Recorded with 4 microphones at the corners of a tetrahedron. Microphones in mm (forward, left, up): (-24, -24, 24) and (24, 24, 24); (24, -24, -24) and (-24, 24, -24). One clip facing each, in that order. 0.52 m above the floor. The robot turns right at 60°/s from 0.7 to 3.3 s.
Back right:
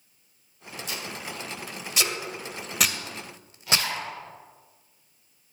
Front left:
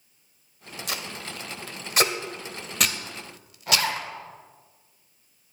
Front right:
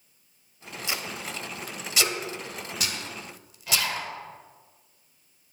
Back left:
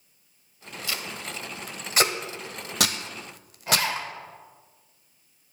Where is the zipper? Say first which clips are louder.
Front left 2 dB, back left 3 dB; 80° left, 1.2 m.